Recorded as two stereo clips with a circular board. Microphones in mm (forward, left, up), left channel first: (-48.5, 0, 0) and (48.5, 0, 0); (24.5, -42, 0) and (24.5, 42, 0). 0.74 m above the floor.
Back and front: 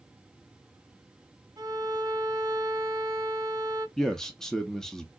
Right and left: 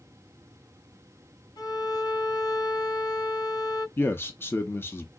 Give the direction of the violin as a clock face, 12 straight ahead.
2 o'clock.